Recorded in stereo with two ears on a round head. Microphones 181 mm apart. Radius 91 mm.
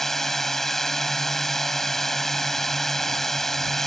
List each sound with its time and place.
0.0 s a drone: centre (ahead or behind)